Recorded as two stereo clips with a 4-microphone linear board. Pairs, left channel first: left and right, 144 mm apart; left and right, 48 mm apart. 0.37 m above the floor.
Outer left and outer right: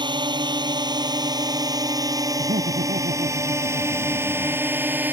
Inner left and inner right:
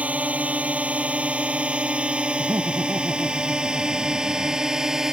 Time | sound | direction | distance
0.0 | a drone | 30° right (ahead or behind) | ?
2.4 | laughter | 80° right | ?